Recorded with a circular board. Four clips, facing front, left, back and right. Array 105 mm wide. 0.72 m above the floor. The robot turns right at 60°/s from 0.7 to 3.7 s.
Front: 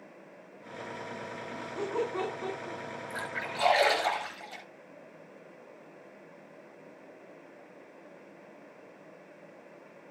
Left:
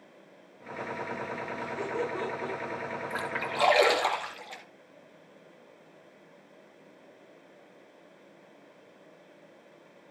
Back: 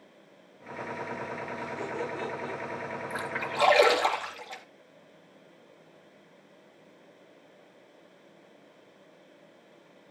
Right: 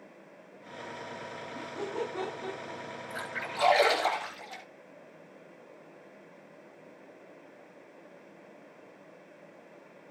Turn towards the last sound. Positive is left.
turn(degrees=135)